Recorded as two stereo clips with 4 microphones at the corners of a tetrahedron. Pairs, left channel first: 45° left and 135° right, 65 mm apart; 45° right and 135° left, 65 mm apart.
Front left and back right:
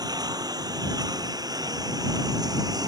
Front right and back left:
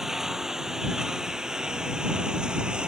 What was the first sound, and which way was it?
A lawn mower, 140° right.